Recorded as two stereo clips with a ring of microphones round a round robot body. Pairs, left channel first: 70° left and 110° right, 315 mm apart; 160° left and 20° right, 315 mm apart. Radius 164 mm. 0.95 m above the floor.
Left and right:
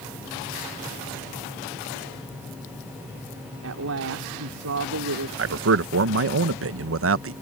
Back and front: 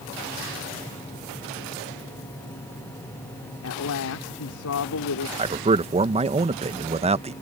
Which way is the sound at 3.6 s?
160° right.